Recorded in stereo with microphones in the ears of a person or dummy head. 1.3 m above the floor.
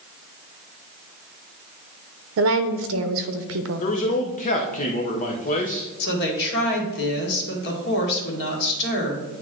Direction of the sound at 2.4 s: 75° right (ahead or behind).